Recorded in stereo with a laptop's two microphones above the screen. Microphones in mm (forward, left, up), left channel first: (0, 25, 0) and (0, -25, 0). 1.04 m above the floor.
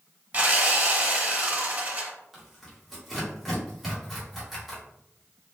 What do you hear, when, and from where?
0.3 s sawing: 35° right (ahead or behind), 1.2 m
2.3 s tearing paper: centre (ahead or behind), 1.0 m